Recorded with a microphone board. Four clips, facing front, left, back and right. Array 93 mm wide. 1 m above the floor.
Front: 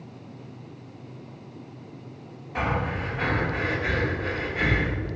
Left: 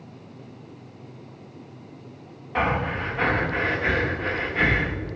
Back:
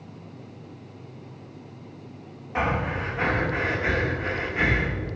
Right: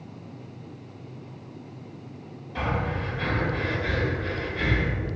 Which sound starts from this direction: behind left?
Breathing, at 2.5 s.